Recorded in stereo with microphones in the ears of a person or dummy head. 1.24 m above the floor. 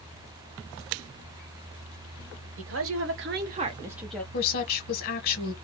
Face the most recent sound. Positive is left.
turn(degrees=50)  # may be behind; listen again after turning